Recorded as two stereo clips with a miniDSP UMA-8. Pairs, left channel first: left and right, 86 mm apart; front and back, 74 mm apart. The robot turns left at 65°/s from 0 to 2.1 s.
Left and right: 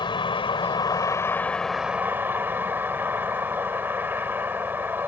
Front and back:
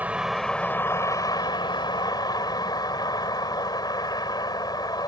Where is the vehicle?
115° left; by 5.1 s 25° right.